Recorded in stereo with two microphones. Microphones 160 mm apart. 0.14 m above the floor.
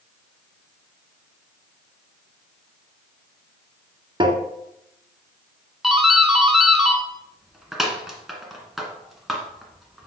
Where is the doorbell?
Centre (ahead or behind), 1.7 m.